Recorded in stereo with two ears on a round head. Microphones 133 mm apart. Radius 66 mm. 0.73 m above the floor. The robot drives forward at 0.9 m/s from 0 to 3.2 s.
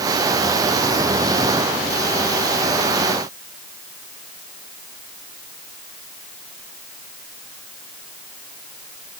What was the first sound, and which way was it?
Only background noise.